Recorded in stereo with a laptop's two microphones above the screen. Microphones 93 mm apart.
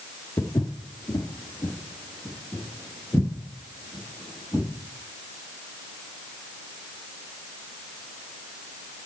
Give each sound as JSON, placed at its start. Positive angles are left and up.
{"t": 0.4, "sound": "footsteps", "side_deg": 35, "distance_m": 1.3}